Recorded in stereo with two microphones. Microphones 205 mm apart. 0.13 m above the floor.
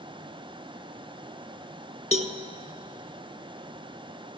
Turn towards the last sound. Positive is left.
turn(degrees=-35)  # may be behind; listen again after turning